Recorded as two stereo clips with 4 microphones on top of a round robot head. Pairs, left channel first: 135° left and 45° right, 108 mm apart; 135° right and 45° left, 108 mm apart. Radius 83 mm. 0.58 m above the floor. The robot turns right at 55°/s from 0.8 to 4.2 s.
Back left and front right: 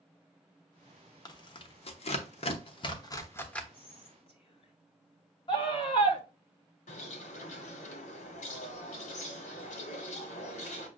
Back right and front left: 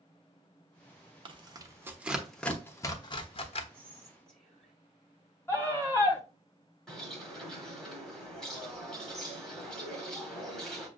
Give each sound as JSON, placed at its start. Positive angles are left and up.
{"t": 1.2, "sound": "tearing paper", "azimuth_deg": 80, "distance_m": 0.8}
{"t": 3.7, "sound": "whispering", "azimuth_deg": 115, "distance_m": 2.0}
{"t": 5.5, "sound": "a scream", "azimuth_deg": 165, "distance_m": 1.8}
{"t": 6.9, "sound": "a bird", "azimuth_deg": 140, "distance_m": 1.2}